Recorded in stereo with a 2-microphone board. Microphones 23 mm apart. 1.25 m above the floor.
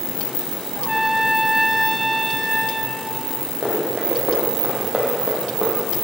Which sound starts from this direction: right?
Running footsteps, at 3.6 s.